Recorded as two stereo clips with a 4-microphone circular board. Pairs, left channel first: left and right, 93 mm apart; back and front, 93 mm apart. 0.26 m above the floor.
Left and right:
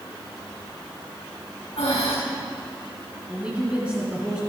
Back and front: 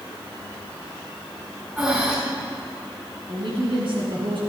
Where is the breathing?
75° left, 5 m.